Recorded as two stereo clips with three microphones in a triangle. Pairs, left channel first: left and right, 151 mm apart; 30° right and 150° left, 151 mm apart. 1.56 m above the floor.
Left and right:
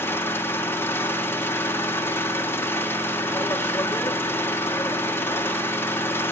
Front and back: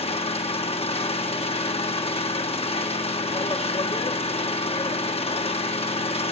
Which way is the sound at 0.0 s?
15° left.